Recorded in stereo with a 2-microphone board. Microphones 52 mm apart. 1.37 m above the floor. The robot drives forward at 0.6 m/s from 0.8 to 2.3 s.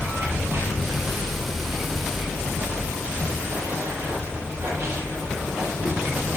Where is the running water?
55° right (ahead or behind), 10 m; by 6.4 s 50° right (ahead or behind), 10.5 m.